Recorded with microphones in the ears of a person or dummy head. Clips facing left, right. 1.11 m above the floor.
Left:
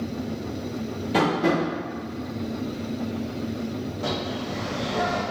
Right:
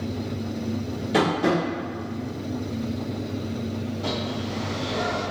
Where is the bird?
65° left (ahead or behind), 1.4 m.